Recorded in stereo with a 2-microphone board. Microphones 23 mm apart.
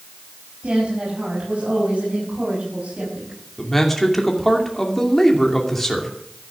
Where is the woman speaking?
60° right (ahead or behind), 6.5 m; by 3.4 s 75° right (ahead or behind), 6.5 m.